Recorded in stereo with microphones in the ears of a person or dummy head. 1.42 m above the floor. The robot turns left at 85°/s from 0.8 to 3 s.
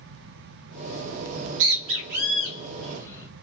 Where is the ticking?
I don't hear ticking.